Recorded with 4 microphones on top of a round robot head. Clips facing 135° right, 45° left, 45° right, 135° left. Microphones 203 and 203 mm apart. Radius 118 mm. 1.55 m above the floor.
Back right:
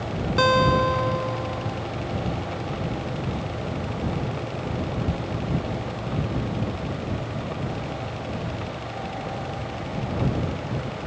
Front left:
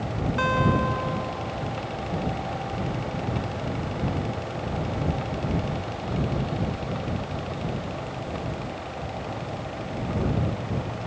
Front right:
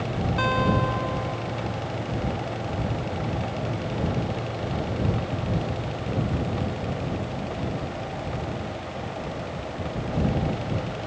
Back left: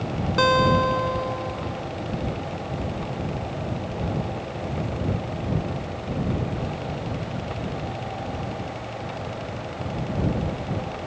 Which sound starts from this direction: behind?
A guitar, at 0.4 s.